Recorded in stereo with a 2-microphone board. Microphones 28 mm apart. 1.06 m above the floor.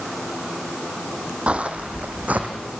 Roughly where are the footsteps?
Right.